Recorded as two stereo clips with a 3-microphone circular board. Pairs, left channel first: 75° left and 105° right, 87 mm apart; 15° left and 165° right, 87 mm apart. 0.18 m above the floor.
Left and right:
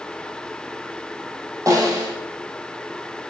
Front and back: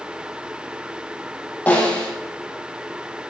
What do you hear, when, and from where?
1.7 s a snare drum: 55° right, 4 m